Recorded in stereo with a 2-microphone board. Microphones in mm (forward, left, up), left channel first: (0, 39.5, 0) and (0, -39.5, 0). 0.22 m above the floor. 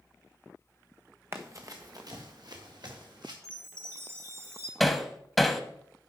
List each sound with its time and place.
1.3 s running footsteps: 30° right (ahead or behind), 1.2 m; by 3.3 s 65° right (ahead or behind), 3.5 m
3.4 s a chime: 30° right (ahead or behind), 2 m
4.8 s hammering: centre (ahead or behind), 0.9 m